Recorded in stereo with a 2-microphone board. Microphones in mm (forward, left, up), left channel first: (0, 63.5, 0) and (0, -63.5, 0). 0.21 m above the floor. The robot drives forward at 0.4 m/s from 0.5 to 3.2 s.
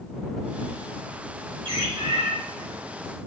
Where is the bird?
45° right (ahead or behind), 3 m; by 2.3 s 40° right (ahead or behind), 3.5 m.